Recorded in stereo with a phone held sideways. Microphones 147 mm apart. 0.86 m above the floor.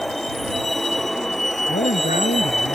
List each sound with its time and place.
0.0 s a vehicle: centre (ahead or behind)
1.7 s a man speaking: 65° left (ahead or behind)